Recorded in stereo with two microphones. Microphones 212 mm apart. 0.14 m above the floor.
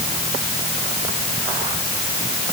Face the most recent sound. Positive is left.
No sound to turn to.